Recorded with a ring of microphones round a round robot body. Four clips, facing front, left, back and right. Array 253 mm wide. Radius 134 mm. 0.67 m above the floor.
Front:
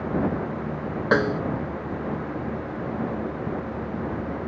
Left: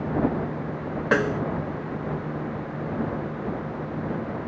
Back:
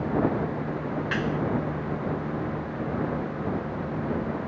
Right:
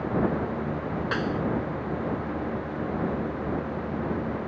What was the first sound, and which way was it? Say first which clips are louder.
A snare drum: left 7 dB, front 9 dB; 35° left.